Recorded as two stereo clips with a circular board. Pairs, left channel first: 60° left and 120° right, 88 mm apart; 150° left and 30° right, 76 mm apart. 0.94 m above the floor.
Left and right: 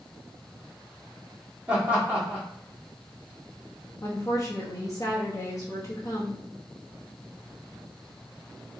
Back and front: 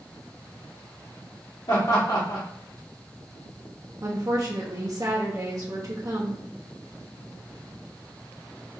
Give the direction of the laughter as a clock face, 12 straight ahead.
6 o'clock.